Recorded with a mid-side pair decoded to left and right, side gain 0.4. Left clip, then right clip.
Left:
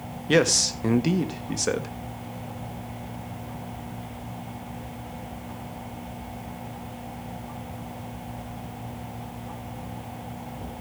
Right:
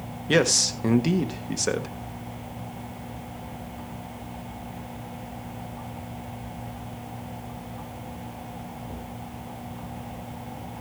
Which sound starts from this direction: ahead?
A man speaking, at 0.3 s.